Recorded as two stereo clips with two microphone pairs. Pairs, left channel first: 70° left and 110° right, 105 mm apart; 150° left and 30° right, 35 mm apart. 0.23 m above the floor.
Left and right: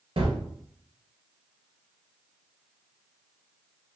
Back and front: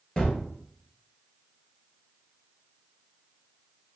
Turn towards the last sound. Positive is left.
turn(degrees=-145)